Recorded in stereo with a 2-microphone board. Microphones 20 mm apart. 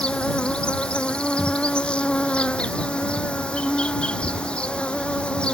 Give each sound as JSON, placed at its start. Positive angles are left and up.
{"t": 0.0, "sound": "an insect", "side_deg": 65}